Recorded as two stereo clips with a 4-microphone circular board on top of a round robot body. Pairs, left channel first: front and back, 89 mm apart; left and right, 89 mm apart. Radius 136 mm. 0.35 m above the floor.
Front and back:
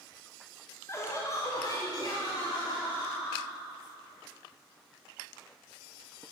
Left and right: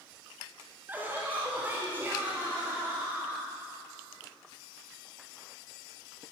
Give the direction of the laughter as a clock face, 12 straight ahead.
1 o'clock.